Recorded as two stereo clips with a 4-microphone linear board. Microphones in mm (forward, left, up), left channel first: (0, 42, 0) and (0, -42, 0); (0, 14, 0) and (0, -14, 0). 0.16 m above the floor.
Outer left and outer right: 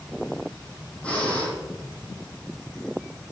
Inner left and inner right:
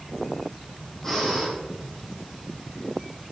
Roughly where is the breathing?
Centre.